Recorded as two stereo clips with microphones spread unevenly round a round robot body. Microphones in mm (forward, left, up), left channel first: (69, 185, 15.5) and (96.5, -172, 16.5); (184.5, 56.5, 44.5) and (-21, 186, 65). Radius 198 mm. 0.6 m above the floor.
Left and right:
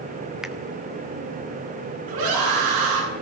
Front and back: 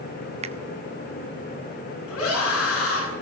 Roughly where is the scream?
Right.